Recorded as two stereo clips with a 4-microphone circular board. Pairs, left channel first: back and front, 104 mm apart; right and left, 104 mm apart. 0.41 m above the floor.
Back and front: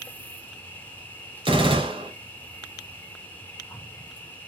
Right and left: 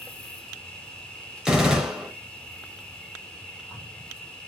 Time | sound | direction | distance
0.0 | an insect | 140° right | 2 m
1.4 | a gunshot | 10° left | 1.9 m